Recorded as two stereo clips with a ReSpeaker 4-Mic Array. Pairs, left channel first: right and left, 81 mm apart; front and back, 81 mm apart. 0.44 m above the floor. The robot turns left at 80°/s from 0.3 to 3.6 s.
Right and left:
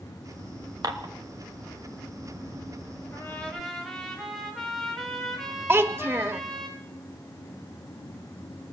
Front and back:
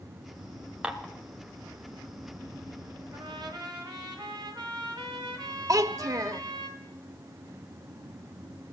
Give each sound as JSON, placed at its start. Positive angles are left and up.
{"t": 0.8, "sound": "dishes clattering", "azimuth_deg": 105, "distance_m": 1.3}
{"t": 3.1, "sound": "a trumpet", "azimuth_deg": -140, "distance_m": 2.5}
{"t": 5.7, "sound": "a child speaking", "azimuth_deg": 145, "distance_m": 0.7}